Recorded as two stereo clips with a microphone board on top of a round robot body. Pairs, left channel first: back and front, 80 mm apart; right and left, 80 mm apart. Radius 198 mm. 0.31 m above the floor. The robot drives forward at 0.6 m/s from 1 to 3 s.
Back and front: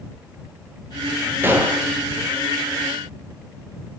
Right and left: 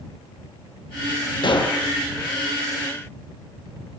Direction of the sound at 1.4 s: 65° right.